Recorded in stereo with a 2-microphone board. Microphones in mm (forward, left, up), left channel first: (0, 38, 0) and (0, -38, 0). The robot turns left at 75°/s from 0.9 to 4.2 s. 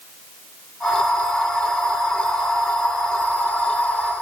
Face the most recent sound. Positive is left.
No sound to turn to.